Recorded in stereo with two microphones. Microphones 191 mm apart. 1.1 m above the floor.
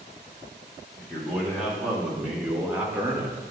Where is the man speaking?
Centre (ahead or behind), 2.5 m; by 3.4 s 15° right (ahead or behind), 1.5 m.